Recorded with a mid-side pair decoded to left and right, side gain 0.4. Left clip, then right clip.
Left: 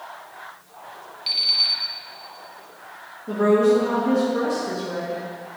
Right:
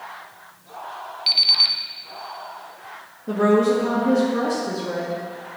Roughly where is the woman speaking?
Ahead right.